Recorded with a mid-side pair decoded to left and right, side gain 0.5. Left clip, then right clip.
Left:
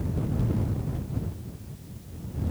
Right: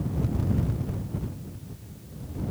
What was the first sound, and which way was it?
Only background noise.